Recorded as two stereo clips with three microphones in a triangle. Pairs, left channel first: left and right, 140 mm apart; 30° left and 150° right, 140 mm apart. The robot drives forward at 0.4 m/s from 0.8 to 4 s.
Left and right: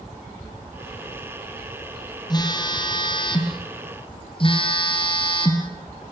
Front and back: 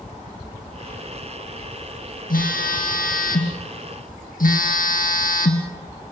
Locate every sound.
2.3 s a phone buzzing: 30° left, 2.5 m; by 5.7 s 40° left, 2 m